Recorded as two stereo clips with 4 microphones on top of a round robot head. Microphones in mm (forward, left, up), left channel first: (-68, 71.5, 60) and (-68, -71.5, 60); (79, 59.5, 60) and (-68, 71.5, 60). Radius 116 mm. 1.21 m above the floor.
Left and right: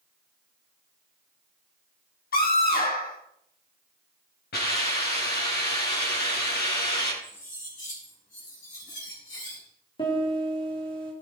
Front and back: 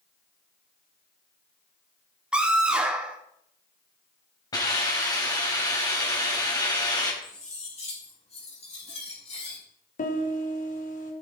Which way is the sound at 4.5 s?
60° left.